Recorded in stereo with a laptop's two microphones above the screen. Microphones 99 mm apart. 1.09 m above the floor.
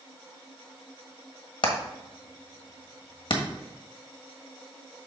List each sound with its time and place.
1.6 s hammering: 60° left (ahead or behind), 1.4 m